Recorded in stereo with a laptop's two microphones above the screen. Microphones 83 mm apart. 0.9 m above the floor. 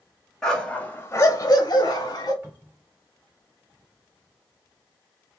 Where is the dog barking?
10° left (ahead or behind), 1.3 m; by 2.3 s 50° left (ahead or behind), 1.4 m.